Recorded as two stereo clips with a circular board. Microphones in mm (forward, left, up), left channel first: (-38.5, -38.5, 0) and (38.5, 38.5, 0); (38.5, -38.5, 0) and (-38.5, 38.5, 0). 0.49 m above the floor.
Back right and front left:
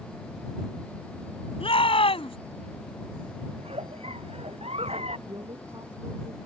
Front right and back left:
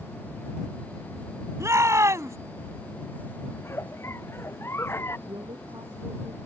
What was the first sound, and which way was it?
A shout, 165° right.